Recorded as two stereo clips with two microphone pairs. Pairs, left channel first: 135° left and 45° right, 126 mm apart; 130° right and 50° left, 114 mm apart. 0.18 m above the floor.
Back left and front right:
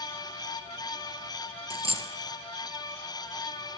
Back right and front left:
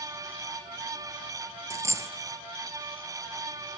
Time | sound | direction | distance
1.7 | a dropped coin | 10° right | 1.1 m